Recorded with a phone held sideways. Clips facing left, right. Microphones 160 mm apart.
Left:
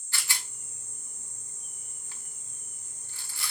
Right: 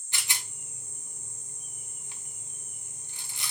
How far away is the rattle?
About 0.8 m.